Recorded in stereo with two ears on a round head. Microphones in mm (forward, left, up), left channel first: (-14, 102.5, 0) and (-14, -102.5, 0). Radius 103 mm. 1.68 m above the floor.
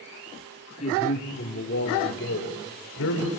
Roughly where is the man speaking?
Left.